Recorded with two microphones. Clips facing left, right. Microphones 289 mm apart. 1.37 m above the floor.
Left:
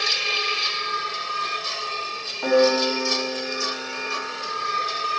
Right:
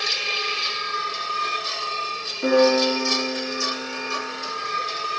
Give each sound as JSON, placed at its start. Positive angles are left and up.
{"t": 2.4, "sound": "a piano", "side_deg": -30, "distance_m": 3.5}